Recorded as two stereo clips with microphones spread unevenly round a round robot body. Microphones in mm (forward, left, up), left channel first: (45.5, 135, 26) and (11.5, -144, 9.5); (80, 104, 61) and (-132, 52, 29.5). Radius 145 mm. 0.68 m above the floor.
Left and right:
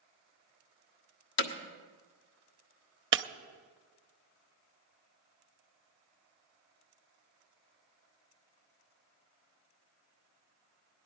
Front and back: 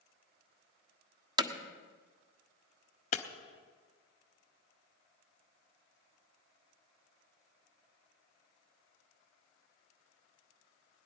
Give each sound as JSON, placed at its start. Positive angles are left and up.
{"t": 1.4, "sound": "hammering", "azimuth_deg": 130, "distance_m": 1.4}
{"t": 3.1, "sound": "breaking glass", "azimuth_deg": -50, "distance_m": 0.7}